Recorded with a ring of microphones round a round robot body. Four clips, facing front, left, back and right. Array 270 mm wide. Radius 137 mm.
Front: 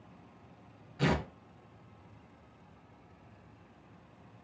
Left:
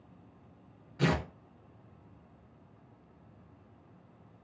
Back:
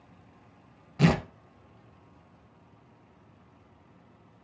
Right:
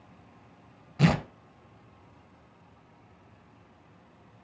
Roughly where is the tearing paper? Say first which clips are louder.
Right 5 dB, back 6 dB; behind right.